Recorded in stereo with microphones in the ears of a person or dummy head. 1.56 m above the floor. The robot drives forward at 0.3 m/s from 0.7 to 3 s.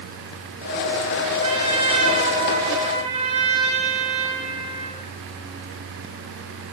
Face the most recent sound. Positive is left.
turn(degrees=-30)  # may be behind; listen again after turning